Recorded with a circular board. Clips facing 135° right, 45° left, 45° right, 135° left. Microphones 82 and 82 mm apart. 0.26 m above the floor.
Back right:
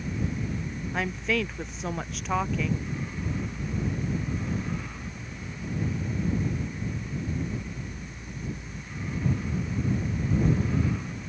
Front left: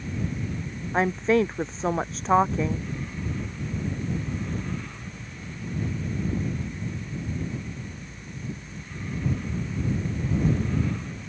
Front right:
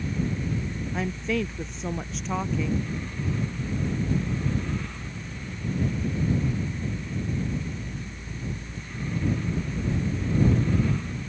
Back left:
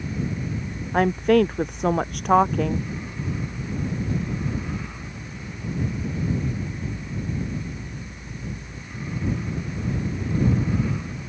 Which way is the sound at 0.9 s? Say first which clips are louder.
Front left 8 dB, back left 11 dB; 105° left.